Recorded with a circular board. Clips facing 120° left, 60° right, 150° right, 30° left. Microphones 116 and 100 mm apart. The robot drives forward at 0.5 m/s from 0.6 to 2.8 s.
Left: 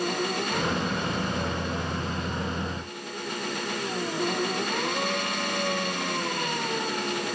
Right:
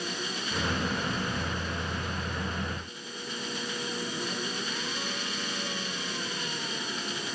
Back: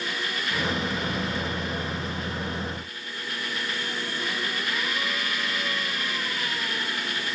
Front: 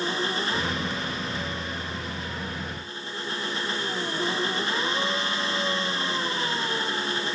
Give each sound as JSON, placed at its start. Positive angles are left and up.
{"t": 0.0, "sound": "an engine running", "azimuth_deg": 90}